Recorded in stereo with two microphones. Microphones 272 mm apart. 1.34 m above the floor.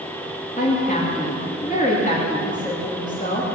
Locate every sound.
0.6 s a woman speaking: 30° left (ahead or behind), 3 m